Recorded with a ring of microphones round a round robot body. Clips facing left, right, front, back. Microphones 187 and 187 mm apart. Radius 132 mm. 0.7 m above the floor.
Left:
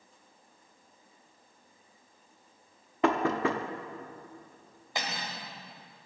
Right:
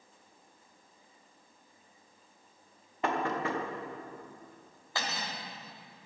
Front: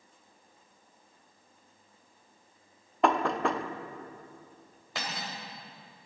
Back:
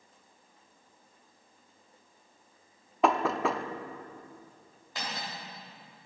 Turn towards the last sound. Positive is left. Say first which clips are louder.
# left 1 dB, front 1 dB
turn(degrees=20)